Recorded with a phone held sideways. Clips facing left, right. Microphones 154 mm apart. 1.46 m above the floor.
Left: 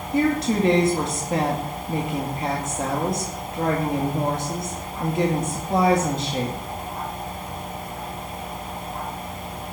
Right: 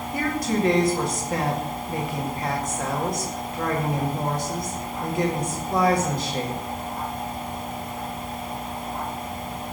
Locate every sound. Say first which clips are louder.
0.1 s a woman speaking: left 5 dB; 25° left (ahead or behind), 2 m